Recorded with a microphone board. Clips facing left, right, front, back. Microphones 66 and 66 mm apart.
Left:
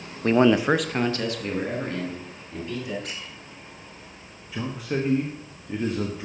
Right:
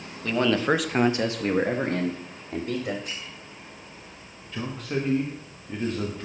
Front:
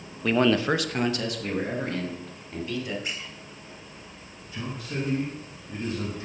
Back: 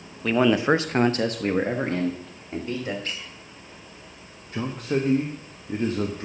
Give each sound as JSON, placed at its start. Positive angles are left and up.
{"t": 0.2, "sound": "a man speaking", "azimuth_deg": 90, "distance_m": 0.7}
{"t": 3.0, "sound": "a squeak", "azimuth_deg": 75, "distance_m": 3.5}
{"t": 4.5, "sound": "a man speaking", "azimuth_deg": 170, "distance_m": 1.2}